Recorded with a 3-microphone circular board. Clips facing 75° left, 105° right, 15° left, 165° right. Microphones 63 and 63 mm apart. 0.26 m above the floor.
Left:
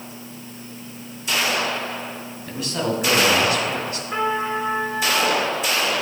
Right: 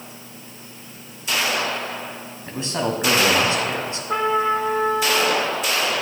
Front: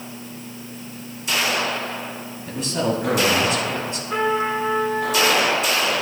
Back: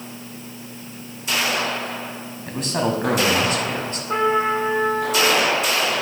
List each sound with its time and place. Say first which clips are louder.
2.5 s a man speaking: even, even; 160° right, 1.8 m
4.1 s a trumpet: right 4 dB, back 2 dB; 125° right, 3 m